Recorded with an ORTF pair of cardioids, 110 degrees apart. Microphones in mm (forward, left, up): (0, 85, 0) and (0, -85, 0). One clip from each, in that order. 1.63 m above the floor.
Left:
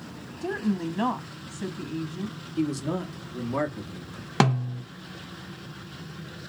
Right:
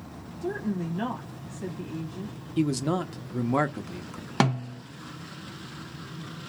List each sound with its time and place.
0.4 s a woman speaking: 25° left, 0.8 m
2.6 s a man speaking: 25° right, 0.5 m
4.4 s a snare drum: 10° left, 0.5 m